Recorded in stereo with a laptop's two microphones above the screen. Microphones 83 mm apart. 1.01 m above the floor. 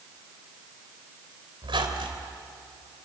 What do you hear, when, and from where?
1.6 s a squeak: 85° right, 3 m